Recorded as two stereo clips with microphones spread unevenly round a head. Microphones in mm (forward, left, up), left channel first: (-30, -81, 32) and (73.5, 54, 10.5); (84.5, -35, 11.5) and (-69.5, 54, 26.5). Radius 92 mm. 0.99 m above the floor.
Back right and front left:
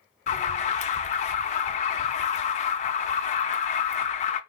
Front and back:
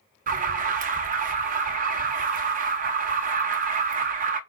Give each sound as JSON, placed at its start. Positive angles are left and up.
{"t": 0.3, "sound": "an alarm", "azimuth_deg": -175, "distance_m": 0.6}